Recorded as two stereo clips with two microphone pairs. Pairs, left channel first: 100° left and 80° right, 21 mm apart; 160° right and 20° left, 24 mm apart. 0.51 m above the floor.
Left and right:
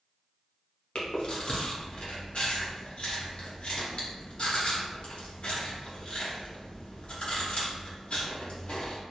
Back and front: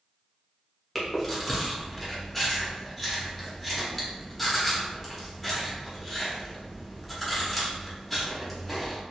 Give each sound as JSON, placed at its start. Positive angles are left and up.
{"t": 0.9, "sound": "chewing", "azimuth_deg": 120, "distance_m": 0.7}